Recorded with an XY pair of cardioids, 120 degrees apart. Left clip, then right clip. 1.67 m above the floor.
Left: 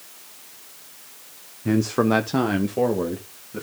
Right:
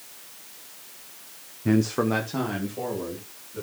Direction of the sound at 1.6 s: 10° right.